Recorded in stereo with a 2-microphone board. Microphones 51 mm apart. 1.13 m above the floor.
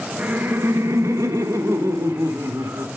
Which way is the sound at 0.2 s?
30° right (ahead or behind).